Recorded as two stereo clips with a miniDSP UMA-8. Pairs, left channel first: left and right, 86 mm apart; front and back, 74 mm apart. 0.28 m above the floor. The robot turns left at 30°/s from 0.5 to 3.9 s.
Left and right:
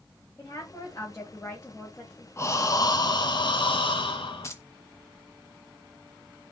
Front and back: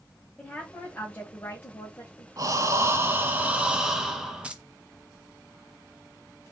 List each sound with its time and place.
0.4 s a woman speaking: 70° left, 1.6 m; by 2.3 s 20° left, 1.6 m
2.4 s breathing: 145° left, 0.9 m; by 4.5 s 100° left, 0.9 m
4.4 s keys jangling: 115° left, 0.8 m